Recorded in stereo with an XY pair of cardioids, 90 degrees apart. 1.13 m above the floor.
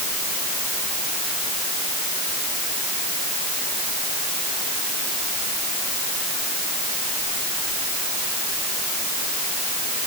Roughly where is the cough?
No cough in this recording.